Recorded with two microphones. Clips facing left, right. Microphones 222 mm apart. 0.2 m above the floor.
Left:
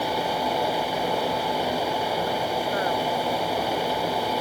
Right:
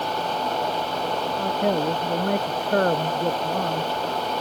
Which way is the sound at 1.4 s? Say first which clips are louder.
Right 3 dB; 65° right (ahead or behind).